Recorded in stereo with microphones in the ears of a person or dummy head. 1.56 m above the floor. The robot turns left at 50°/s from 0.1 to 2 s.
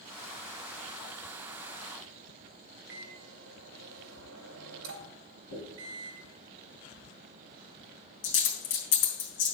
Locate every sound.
2.9 s a microwave: 80° right, 2 m
5.5 s a dropped coin: 55° left (ahead or behind), 3 m